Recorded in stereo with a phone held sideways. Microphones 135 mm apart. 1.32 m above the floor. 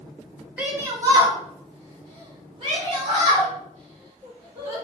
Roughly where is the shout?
Centre.